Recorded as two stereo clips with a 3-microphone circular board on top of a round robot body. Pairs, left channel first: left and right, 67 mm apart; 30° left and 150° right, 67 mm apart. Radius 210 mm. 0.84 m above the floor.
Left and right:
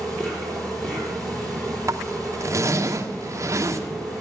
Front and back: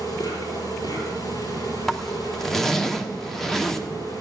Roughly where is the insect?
Ahead.